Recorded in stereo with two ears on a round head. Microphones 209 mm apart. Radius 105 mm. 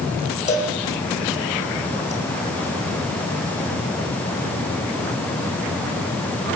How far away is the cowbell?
About 4.5 m.